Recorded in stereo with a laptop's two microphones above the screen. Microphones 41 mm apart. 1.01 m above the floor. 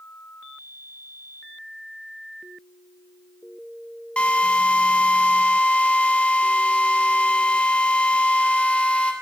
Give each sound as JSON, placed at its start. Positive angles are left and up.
{"t": 4.2, "sound": "a drill", "side_deg": 30, "distance_m": 2.5}